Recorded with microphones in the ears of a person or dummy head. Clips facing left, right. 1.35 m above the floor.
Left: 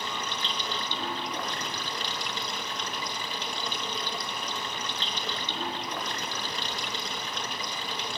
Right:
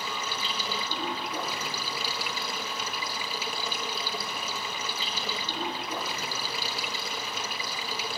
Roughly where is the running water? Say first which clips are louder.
Even; centre.